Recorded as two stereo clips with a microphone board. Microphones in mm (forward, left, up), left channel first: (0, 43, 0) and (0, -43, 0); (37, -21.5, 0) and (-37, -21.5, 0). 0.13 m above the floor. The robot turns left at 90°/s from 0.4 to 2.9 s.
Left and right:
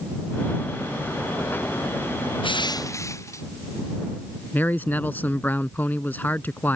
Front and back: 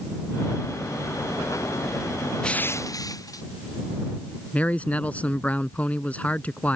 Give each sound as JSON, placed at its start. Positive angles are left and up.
{"t": 2.4, "sound": "crushing", "azimuth_deg": 80}
{"t": 4.5, "sound": "a man speaking", "azimuth_deg": 50}